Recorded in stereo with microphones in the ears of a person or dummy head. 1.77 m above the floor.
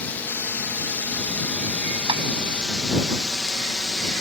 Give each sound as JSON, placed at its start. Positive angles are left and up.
{"t": 0.0, "sound": "a drone", "side_deg": 10}
{"t": 2.1, "sound": "tapping", "side_deg": -35}